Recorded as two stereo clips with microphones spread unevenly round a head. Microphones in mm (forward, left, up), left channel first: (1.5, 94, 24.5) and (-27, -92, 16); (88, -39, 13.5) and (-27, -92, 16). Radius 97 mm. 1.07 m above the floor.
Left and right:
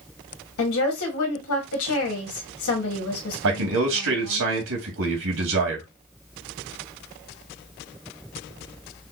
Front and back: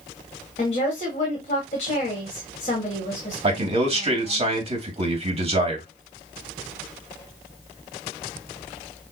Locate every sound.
0.6 s a woman speaking: 75° left, 1.8 m
3.4 s a man speaking: 110° right, 2.0 m